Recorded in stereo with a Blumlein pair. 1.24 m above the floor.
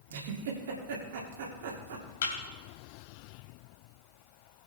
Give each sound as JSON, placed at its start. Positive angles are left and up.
{"t": 0.1, "sound": "a giggle", "azimuth_deg": -55, "distance_m": 2.5}
{"t": 2.2, "sound": "a thud", "azimuth_deg": 55, "distance_m": 3.0}